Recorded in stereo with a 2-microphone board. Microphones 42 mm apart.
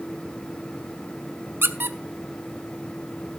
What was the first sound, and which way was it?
A squeak, 65° right (ahead or behind).